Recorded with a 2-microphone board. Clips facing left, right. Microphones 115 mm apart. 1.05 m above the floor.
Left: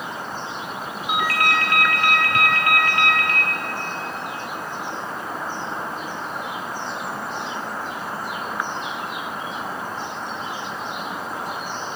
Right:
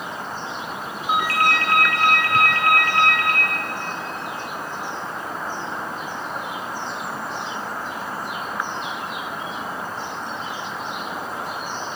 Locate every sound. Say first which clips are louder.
1.1 s a ringtone: right 2 dB; 40° right (ahead or behind), 1.3 m